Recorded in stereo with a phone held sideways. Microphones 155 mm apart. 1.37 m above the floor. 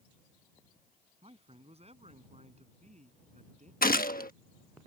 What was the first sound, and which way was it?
A man speaking, 40° right (ahead or behind).